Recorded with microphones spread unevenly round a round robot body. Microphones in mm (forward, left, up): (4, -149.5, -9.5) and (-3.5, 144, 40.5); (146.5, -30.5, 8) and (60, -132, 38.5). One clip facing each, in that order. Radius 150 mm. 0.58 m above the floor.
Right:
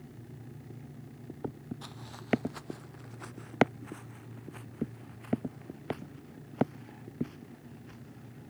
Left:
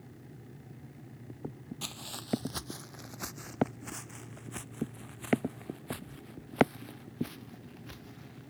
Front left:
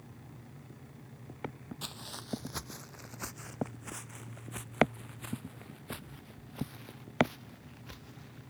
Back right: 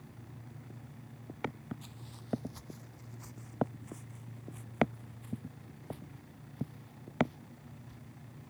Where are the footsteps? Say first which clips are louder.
Left 1 dB, front left 5 dB; 70° left; by 8.5 s 65° left.